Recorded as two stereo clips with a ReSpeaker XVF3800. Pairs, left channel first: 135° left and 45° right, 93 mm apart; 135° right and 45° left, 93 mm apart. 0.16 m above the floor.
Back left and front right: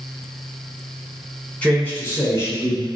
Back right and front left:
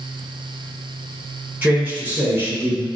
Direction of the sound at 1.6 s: 85° left.